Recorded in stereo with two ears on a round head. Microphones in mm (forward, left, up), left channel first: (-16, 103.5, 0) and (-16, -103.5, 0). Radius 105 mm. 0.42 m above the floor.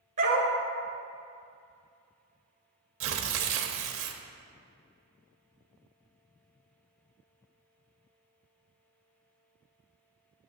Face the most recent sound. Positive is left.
turn(degrees=-65)  # may be behind; listen again after turning